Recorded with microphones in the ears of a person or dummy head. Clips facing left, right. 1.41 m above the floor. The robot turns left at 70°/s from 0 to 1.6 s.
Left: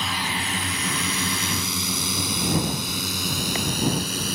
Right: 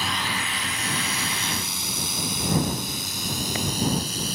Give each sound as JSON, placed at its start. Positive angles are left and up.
{"t": 0.0, "sound": "a drone", "side_deg": -5}